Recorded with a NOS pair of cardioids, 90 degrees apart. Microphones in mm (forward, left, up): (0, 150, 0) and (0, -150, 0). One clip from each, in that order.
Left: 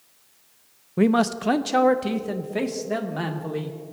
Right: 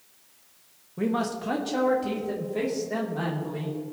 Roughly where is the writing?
No writing in this recording.